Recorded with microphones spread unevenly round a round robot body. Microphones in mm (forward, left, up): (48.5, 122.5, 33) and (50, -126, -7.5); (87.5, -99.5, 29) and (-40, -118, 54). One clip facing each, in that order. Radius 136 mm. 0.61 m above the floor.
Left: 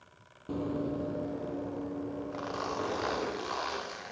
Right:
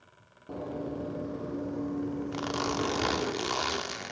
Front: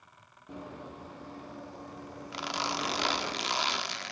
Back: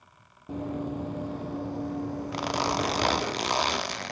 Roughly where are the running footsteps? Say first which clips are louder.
Left 3 dB, back 11 dB; behind left.